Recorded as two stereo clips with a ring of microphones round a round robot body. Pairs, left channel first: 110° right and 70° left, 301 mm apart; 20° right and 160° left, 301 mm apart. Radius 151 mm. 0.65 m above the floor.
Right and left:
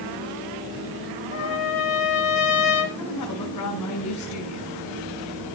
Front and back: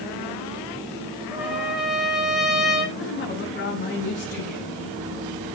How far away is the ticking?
I don't hear ticking.